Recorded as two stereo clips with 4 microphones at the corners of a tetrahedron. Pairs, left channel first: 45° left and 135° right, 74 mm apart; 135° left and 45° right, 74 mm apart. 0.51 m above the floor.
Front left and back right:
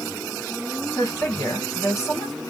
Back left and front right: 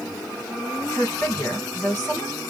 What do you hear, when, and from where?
1.0 s a woman speaking: 85° left, 1.7 m